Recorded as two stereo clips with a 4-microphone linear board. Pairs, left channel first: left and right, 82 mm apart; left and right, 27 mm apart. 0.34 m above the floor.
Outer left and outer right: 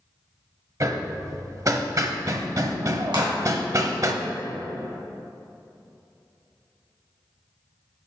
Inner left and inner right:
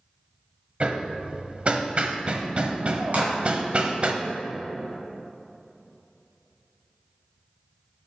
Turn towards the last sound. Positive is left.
turn(degrees=-65)  # may be behind; listen again after turning